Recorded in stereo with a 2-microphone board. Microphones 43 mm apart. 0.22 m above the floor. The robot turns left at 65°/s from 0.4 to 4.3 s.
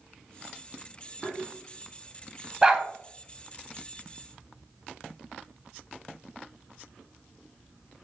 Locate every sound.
1.2 s tapping: 5° left (ahead or behind), 0.6 m; by 1.4 s 15° left (ahead or behind), 0.6 m
2.6 s a dog barking: 15° right (ahead or behind), 0.5 m; by 2.9 s 10° right (ahead or behind), 0.5 m